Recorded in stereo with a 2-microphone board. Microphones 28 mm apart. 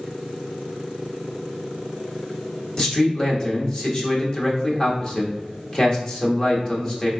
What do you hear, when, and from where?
2.8 s a man speaking: 30° left (ahead or behind), 1.0 m